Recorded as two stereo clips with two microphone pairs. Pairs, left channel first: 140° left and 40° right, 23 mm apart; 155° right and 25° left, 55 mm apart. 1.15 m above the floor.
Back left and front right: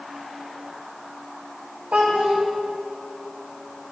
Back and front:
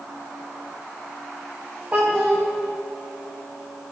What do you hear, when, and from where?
1.9 s a child speaking: 35° right, 0.6 m